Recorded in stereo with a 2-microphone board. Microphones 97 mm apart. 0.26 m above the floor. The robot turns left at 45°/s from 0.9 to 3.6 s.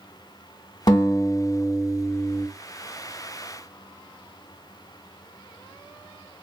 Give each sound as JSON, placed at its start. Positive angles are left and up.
{"t": 0.9, "sound": "a guitar", "azimuth_deg": 70, "distance_m": 1.1}